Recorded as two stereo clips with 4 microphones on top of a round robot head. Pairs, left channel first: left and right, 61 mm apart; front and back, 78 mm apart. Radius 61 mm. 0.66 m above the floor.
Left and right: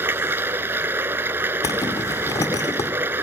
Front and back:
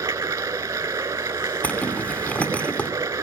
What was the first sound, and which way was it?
Running water, 125° right.